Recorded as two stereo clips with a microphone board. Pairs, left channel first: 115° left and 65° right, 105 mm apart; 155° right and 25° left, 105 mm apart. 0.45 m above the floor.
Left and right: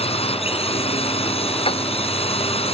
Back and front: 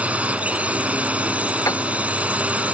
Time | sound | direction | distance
0.0 | a drone | 100° left | ?
1.7 | a piano | 145° left | ?